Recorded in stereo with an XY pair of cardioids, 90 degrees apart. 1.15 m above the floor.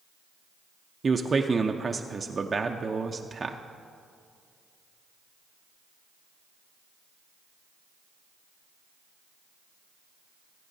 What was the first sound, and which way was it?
A man speaking, 35° right.